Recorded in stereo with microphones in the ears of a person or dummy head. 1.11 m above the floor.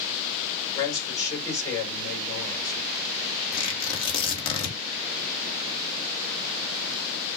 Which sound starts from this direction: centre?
A man speaking, at 0.8 s.